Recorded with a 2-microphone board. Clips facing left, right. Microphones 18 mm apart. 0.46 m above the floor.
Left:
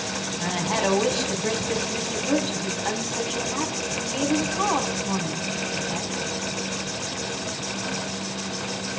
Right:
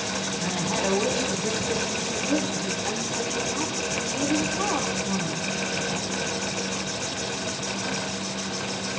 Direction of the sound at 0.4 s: 25° left (ahead or behind).